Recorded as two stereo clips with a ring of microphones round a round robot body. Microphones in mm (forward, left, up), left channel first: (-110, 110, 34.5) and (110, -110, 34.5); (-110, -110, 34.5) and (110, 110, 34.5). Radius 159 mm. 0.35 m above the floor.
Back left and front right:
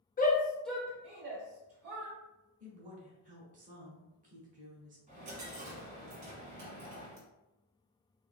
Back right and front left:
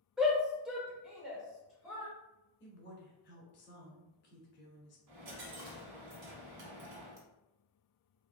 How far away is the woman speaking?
About 1.4 m.